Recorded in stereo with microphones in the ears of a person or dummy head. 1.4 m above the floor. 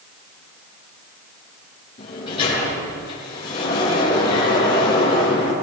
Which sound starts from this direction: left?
A sliding door, at 2.0 s.